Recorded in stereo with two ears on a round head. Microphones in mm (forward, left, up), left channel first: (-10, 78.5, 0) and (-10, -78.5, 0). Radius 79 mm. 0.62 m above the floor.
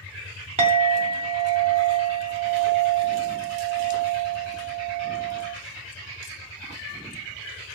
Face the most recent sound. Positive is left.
turn(degrees=-35)  # may be behind; listen again after turning